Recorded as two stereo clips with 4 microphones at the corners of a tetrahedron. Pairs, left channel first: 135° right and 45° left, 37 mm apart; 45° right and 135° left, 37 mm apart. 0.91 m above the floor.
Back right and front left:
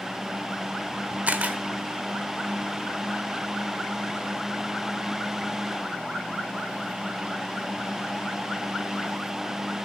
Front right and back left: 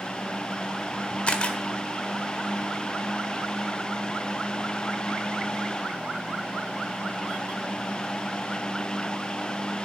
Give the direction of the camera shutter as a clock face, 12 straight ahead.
12 o'clock.